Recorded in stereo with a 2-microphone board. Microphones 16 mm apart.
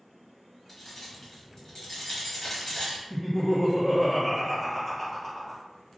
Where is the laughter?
5° left (ahead or behind), 1.7 m.